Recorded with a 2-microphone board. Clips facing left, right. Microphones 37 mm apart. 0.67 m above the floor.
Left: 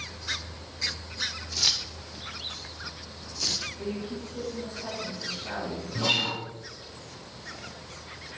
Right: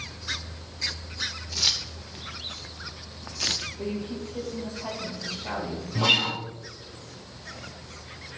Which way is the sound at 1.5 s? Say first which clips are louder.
Right 2 dB; 15° right (ahead or behind).